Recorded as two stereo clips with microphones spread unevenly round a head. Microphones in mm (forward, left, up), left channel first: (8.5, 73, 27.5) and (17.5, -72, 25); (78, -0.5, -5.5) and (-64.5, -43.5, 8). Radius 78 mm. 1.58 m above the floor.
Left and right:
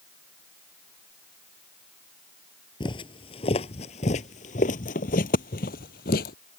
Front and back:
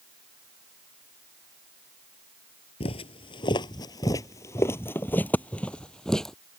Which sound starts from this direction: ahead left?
Footsteps, at 2.8 s.